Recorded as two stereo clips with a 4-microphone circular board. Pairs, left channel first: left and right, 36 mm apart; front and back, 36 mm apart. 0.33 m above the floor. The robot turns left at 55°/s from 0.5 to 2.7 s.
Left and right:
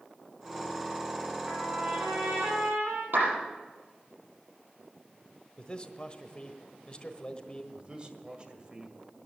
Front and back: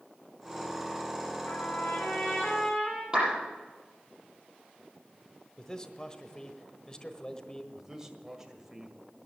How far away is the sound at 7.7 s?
About 1.6 m.